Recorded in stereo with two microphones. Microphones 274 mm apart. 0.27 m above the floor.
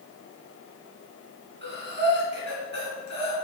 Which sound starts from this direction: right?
Breathing, at 1.6 s.